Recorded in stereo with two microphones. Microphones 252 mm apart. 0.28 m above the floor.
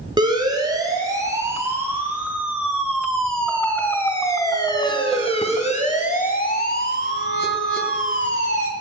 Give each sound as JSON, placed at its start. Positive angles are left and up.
{"t": 0.2, "sound": "a siren", "side_deg": -15, "distance_m": 3.5}